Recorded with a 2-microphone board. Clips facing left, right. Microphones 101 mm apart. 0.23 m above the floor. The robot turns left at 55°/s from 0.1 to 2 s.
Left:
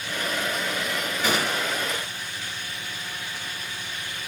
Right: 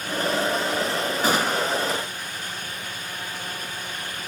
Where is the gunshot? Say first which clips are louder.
Right 3 dB; 55° right, 2.5 m; by 1.9 s 90° right, 2.5 m.